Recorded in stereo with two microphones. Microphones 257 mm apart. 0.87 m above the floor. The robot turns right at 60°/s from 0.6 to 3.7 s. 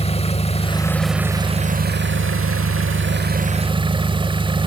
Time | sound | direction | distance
0.0 | an engine running | 150° left | 1.0 m